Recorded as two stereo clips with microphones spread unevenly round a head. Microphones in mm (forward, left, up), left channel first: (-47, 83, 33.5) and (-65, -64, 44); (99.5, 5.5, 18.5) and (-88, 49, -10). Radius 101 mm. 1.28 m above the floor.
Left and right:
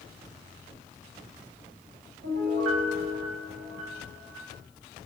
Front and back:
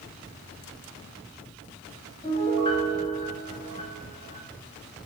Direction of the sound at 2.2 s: 80° right.